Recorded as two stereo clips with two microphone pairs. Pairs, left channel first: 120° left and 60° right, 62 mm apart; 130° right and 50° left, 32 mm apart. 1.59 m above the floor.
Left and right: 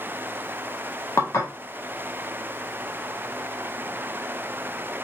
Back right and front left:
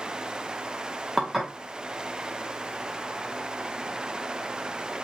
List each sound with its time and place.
1.2 s dishes clattering: 130° left, 0.9 m